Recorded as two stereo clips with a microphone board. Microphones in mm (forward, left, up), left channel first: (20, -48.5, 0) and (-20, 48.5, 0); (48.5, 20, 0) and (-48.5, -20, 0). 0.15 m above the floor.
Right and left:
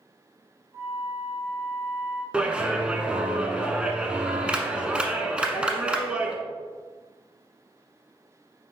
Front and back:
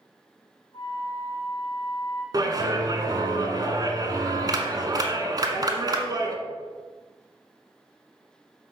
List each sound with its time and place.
0.7 s a flute: 45° left, 1.7 m
2.3 s a clap: 170° right, 1.1 m